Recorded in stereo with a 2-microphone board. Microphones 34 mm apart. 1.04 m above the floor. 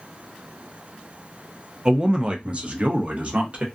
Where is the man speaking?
20° right (ahead or behind), 0.5 m; by 3.6 s 40° right (ahead or behind), 1.0 m.